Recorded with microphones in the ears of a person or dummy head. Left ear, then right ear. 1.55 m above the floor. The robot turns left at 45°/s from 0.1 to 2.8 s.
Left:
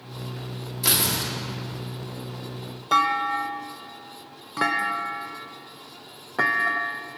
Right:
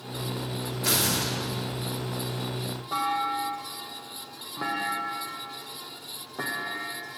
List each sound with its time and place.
0.8 s tearing paper: 35° left (ahead or behind), 2 m; by 1.3 s 10° left (ahead or behind), 2 m
2.9 s a clunk: 70° left (ahead or behind), 0.6 m